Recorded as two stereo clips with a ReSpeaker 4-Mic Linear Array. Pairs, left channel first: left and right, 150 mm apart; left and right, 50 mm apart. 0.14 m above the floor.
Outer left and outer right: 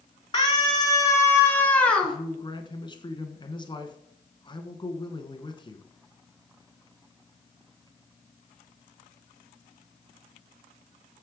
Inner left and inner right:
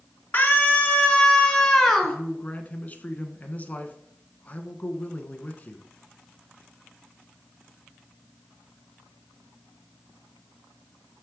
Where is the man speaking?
30° left (ahead or behind), 1.2 m.